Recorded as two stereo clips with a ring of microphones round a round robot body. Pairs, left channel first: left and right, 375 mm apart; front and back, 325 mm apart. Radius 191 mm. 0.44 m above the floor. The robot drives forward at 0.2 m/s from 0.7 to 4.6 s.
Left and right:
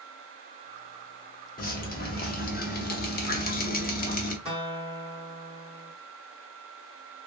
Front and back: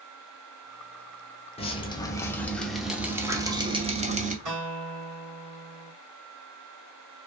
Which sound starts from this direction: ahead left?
Dripping, at 1.6 s.